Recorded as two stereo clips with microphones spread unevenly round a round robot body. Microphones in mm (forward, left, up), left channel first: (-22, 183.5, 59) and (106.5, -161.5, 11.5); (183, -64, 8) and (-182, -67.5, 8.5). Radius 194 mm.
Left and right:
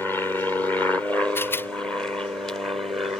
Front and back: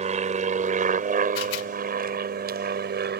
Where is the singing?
No singing in this recording.